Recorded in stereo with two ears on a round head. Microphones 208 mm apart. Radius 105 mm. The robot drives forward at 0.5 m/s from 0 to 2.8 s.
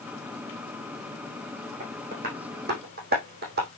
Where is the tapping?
40° right (ahead or behind), 4.5 m; by 3.7 s 45° right (ahead or behind), 4.5 m.